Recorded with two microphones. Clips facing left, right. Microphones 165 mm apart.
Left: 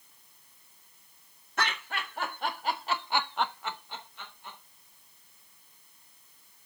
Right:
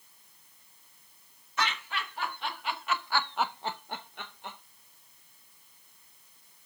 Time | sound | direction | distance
1.6 | laughter | 50° left (ahead or behind) | 2.5 m